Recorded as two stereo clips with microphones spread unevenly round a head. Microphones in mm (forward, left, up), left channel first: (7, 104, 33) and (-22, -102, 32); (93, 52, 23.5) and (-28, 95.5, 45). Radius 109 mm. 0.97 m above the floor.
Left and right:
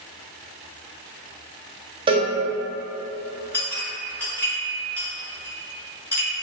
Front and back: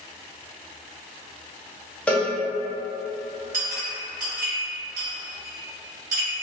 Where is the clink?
165° left, 0.7 m.